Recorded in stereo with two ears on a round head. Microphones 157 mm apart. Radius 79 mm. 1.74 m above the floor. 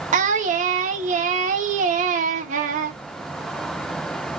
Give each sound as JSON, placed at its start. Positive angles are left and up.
{"t": 0.1, "sound": "singing", "side_deg": -45, "distance_m": 0.9}